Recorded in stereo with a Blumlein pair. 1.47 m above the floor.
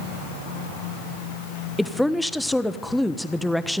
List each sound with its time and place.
1.8 s a woman speaking: 5° left, 1.2 m